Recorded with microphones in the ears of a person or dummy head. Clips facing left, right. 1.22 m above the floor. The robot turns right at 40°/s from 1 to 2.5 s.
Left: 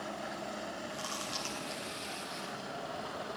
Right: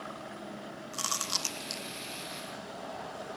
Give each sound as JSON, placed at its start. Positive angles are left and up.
{"t": 0.9, "sound": "chewing", "side_deg": -70, "distance_m": 0.9}